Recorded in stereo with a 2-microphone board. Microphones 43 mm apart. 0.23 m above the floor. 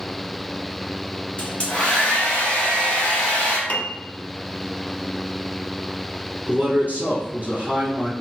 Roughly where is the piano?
Left.